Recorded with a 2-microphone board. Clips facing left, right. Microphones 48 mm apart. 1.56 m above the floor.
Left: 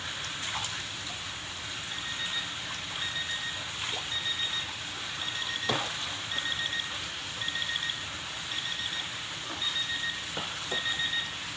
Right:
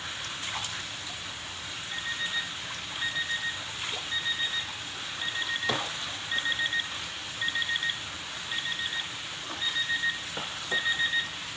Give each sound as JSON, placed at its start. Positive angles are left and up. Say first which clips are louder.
{"t": 1.9, "sound": "an alarm clock", "louder": "right 4 dB", "side_deg": -25, "distance_m": 5.0}